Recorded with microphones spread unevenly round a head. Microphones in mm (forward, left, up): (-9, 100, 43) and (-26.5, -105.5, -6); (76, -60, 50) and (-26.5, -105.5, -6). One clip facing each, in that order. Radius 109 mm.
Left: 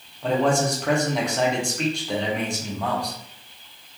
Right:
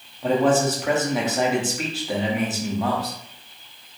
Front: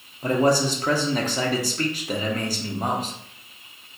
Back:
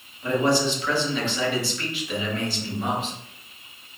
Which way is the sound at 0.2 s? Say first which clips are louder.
Right 2 dB, front 2 dB; 35° right.